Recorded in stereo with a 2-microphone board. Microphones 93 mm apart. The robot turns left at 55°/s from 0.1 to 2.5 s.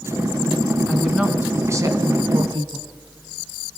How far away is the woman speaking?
About 2.5 m.